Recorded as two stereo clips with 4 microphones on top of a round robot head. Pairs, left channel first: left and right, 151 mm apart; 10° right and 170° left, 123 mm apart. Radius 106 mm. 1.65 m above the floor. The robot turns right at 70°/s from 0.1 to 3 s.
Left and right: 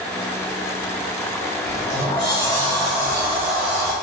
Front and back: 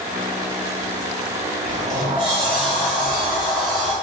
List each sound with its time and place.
1.6 s a sliding door: 95° left, 0.9 m; by 3.9 s 170° right, 0.9 m